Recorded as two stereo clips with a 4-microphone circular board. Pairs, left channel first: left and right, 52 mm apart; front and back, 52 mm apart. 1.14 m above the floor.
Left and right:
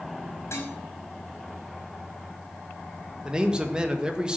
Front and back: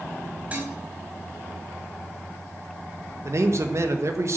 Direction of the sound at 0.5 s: 120° left.